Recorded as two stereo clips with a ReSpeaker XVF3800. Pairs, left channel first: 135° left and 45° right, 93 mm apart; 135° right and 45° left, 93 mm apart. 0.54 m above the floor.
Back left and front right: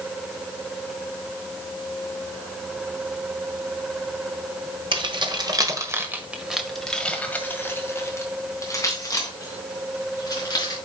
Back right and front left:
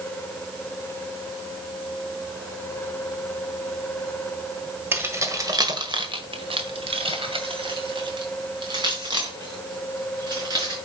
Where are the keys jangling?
20° right, 1.5 m; by 10.8 s 90° left, 4.5 m.